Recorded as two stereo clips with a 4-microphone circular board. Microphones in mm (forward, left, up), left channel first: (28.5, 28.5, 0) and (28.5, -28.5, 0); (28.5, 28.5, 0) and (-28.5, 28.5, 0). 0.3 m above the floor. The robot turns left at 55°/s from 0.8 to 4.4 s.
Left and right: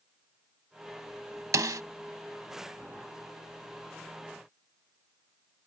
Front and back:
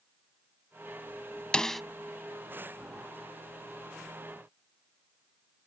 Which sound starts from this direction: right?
A snare drum, at 1.5 s.